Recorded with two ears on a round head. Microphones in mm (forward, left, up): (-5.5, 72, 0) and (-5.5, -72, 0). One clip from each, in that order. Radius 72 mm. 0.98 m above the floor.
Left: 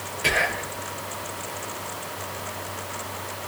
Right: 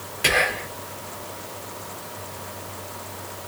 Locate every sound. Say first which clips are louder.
0.2 s whispering: right 2 dB; 40° right (ahead or behind), 1.1 m